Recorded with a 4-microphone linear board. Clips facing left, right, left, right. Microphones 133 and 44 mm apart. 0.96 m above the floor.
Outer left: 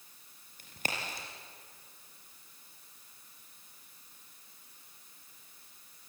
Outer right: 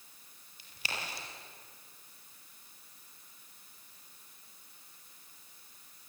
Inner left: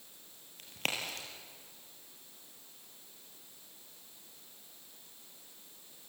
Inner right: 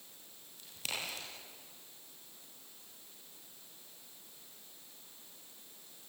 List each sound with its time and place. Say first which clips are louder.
0.6 s a crack: outer left 3 dB, inner left 4 dB; 50° left (ahead or behind), 5 m